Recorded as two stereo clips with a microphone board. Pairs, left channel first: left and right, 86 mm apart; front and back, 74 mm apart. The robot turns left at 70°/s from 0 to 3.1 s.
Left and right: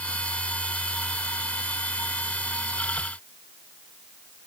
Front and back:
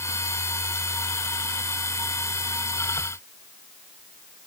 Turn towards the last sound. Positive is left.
No sound to turn to.